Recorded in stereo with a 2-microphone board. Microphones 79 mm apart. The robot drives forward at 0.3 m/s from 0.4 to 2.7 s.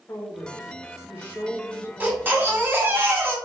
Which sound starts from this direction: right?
A baby crying, at 2.0 s.